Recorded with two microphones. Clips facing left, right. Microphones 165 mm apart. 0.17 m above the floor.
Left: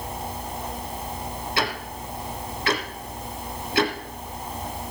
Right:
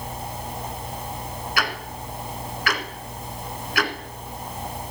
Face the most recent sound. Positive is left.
turn(degrees=30)  # may be behind; listen again after turning